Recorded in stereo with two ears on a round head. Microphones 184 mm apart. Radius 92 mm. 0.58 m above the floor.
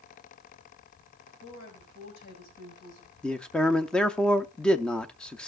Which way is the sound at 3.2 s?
5° left (ahead or behind).